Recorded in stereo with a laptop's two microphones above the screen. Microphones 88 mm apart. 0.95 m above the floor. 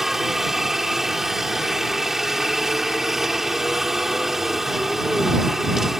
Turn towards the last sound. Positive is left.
turn(degrees=-5)  # may be behind; listen again after turning